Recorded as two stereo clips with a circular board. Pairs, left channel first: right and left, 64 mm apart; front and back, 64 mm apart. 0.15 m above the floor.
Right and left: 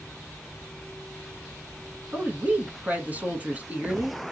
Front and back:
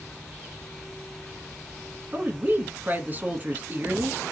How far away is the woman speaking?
About 1.2 m.